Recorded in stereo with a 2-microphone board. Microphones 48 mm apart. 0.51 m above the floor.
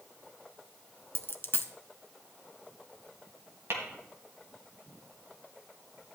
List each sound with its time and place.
1.1 s a dropped coin: 50° left (ahead or behind), 0.6 m
3.7 s tapping: 75° right (ahead or behind), 2.5 m